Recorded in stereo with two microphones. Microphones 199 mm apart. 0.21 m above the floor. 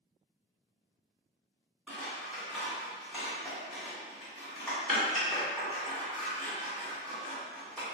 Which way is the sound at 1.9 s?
Centre (ahead or behind).